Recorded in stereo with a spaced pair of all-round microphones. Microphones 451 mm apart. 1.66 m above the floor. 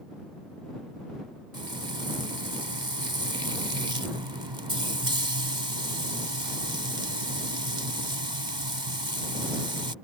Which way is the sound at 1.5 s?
65° right (ahead or behind).